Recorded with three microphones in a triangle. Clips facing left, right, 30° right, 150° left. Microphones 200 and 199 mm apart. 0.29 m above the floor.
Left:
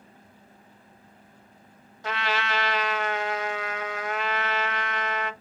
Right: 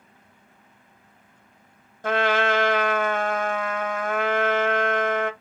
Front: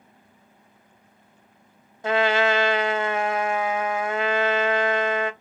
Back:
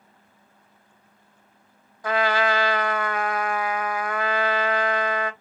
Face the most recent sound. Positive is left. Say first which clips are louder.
# right 8 dB, front 2 dB
turn(degrees=-90)